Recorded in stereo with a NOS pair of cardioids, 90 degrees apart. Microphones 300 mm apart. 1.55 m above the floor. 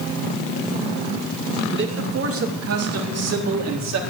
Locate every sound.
1.7 s a man speaking: 40° right, 2 m; by 4.0 s 55° right, 3.5 m